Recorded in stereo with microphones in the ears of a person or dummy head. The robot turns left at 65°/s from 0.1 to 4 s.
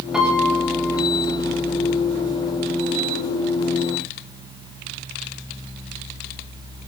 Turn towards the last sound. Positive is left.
turn(degrees=110)